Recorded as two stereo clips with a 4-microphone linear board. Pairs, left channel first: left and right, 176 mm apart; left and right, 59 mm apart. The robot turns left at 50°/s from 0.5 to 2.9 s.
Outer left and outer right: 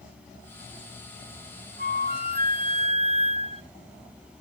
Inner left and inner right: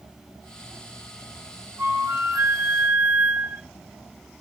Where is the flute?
80° right, 0.7 m; by 3.6 s 135° right, 0.7 m.